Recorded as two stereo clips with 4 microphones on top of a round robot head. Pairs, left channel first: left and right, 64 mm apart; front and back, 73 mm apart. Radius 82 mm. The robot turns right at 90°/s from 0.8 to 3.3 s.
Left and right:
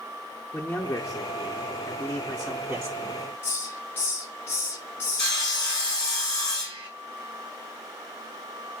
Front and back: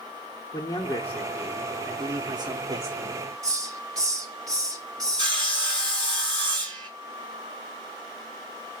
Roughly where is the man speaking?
Ahead left.